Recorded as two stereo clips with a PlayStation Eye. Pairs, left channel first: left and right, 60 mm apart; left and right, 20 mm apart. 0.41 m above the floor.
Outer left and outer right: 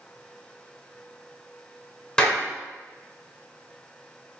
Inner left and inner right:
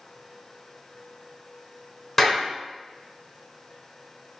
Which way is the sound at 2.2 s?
15° left (ahead or behind).